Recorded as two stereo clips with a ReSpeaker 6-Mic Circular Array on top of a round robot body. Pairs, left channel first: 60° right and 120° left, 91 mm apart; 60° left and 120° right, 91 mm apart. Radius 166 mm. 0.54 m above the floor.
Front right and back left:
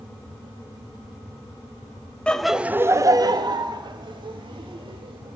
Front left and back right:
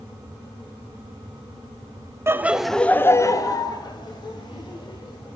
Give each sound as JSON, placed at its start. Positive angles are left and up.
{"t": 2.3, "sound": "laughter", "azimuth_deg": -125, "distance_m": 0.9}